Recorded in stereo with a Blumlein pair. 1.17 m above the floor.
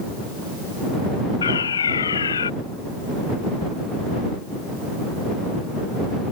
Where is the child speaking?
I don't hear a child speaking.